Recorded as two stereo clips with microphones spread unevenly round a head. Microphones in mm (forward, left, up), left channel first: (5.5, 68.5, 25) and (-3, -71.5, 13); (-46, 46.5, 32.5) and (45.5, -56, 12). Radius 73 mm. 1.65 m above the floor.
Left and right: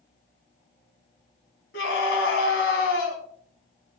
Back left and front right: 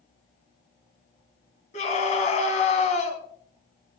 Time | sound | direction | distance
1.7 | a scream | 90° left | 3 m